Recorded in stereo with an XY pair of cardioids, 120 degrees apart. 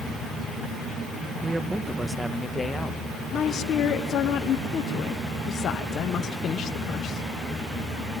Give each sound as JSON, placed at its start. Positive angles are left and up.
{"t": 1.4, "sound": "a man speaking", "azimuth_deg": -30, "distance_m": 1.2}
{"t": 3.3, "sound": "a woman speaking", "azimuth_deg": 55, "distance_m": 1.3}